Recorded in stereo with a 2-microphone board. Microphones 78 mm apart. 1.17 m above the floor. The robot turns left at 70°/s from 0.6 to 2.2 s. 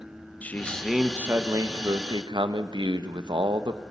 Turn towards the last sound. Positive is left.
turn(degrees=-90)